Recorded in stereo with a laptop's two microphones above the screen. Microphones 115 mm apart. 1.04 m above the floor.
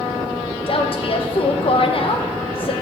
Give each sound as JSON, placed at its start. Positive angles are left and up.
{"t": 0.7, "sound": "a woman speaking", "side_deg": 50, "distance_m": 0.7}